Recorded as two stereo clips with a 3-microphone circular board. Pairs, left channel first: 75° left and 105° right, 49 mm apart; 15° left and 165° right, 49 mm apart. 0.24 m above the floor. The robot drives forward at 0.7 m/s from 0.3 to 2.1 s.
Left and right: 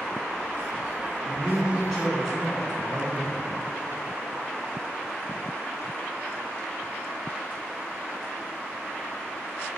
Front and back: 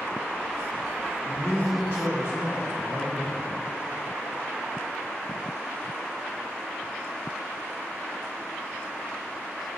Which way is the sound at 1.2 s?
175° left.